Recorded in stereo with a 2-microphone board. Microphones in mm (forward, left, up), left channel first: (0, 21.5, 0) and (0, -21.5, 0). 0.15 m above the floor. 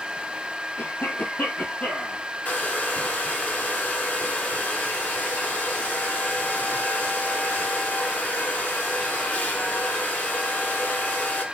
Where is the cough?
55° left (ahead or behind), 2.5 m.